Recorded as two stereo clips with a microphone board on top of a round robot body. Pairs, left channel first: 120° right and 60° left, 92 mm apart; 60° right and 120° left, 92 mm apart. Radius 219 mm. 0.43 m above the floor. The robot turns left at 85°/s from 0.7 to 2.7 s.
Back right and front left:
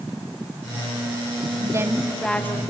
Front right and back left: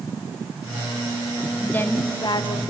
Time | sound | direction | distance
1.6 | a woman speaking | 20° left | 1.8 m